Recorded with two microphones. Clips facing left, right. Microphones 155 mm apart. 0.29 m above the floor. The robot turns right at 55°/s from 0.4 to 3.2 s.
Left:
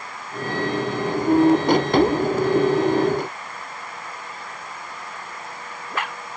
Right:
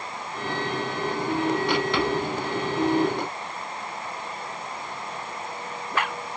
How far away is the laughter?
No laughter in this recording.